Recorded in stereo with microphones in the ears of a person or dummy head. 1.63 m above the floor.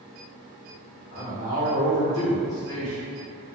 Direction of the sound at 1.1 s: 85° left.